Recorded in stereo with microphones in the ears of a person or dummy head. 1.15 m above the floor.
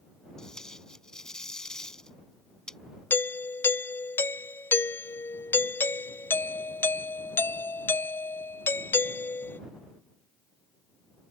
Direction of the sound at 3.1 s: 10° left (ahead or behind).